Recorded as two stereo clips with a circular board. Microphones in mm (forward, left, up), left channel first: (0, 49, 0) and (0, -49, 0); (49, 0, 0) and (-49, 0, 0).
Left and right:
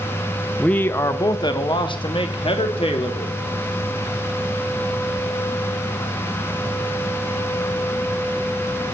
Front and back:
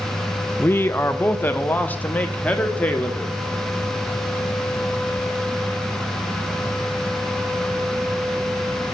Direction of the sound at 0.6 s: 20° left.